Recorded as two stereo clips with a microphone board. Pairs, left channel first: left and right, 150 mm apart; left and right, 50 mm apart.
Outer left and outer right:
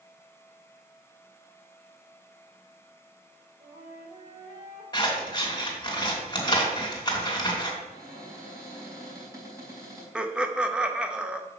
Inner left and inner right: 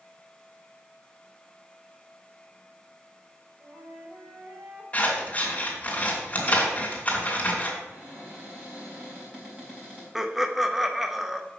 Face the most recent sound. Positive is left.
turn(degrees=-5)  # may be behind; listen again after turning